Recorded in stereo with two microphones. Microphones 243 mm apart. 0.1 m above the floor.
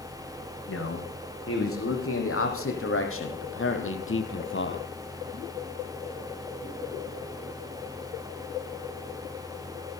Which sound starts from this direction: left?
A man speaking, at 0.7 s.